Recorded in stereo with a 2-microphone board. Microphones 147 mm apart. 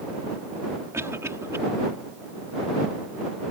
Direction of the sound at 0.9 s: 20° right (ahead or behind).